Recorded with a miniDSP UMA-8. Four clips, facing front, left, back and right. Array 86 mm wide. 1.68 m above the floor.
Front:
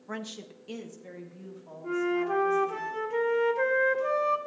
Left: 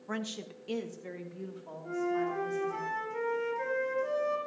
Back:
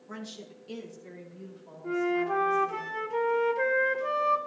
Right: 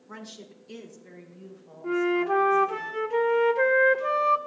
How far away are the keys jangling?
No keys jangling in this recording.